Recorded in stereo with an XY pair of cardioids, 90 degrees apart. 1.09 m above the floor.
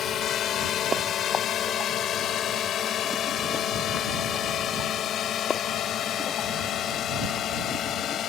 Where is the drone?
70° left.